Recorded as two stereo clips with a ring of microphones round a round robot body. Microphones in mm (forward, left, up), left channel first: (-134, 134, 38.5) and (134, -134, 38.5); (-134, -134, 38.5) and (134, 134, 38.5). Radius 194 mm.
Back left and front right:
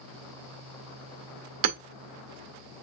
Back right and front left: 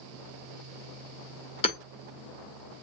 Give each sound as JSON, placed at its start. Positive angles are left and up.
{"t": 1.6, "sound": "hammering", "azimuth_deg": -60, "distance_m": 1.2}